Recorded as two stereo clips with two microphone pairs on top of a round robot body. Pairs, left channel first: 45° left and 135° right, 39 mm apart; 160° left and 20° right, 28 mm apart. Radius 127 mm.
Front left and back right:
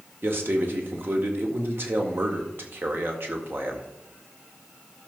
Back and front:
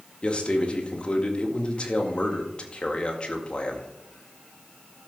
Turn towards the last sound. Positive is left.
turn(degrees=-155)